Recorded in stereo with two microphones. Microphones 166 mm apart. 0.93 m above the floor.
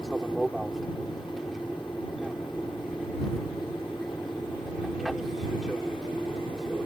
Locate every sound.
0.0 s an aircraft: centre (ahead or behind)